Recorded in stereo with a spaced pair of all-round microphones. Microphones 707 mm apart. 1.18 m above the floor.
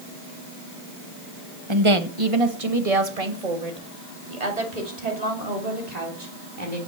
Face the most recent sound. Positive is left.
turn(degrees=-65)  # may be behind; listen again after turning